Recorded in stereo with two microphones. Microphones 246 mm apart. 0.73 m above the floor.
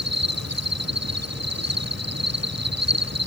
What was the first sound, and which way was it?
An insect, 85° right.